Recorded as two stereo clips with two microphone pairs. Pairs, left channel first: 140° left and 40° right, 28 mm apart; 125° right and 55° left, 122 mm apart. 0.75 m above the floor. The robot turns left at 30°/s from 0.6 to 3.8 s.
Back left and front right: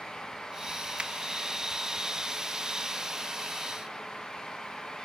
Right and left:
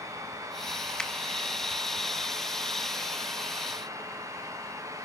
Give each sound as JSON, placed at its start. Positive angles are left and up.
{"t": 1.0, "sound": "a finger snap", "azimuth_deg": -40, "distance_m": 0.9}